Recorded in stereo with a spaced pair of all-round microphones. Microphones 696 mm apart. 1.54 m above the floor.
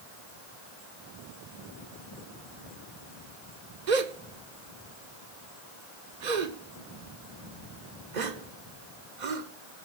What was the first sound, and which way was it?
A gasp, 85° right.